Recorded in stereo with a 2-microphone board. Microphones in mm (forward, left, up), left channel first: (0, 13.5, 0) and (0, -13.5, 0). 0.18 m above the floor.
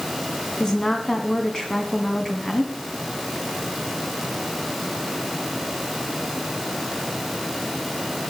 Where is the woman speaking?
20° left (ahead or behind), 1.4 m.